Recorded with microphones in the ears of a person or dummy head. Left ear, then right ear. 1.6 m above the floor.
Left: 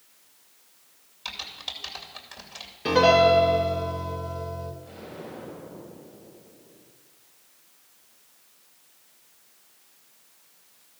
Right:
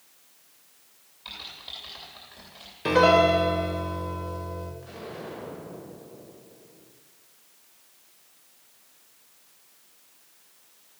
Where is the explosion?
75° right (ahead or behind), 5 m.